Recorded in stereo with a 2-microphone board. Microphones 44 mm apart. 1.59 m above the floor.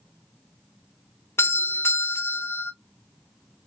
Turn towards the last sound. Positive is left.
turn(degrees=75)  # may be behind; listen again after turning